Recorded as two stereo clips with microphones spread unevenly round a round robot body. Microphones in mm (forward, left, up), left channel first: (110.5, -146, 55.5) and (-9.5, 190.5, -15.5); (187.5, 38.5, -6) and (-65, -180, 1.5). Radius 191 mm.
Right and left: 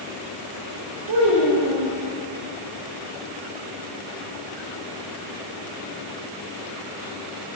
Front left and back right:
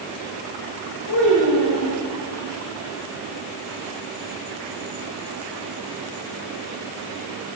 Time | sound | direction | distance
1.1 | a child speaking | 85° left | 1.3 m